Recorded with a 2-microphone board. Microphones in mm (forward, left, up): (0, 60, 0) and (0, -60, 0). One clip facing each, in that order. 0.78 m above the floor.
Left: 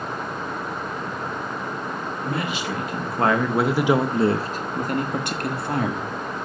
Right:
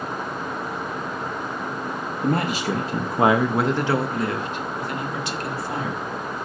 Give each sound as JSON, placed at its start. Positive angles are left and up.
{"t": 2.2, "sound": "a man speaking", "side_deg": -50, "distance_m": 1.1}